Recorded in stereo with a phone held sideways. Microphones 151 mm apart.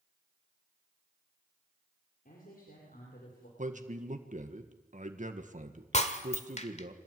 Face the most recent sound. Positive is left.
turn(degrees=50)  # may be behind; listen again after turning